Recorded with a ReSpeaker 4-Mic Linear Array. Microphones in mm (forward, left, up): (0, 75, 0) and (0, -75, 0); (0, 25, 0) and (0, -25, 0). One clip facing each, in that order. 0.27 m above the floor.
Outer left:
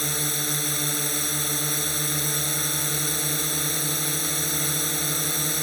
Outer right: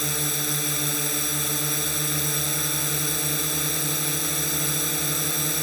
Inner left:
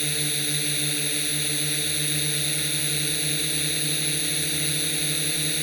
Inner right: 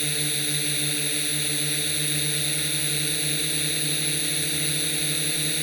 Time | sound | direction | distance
0.0 | a drone | centre (ahead or behind) | ?